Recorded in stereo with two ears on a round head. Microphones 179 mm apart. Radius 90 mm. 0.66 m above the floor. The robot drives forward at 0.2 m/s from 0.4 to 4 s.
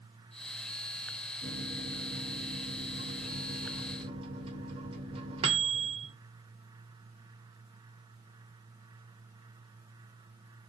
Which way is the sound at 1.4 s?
30° right (ahead or behind).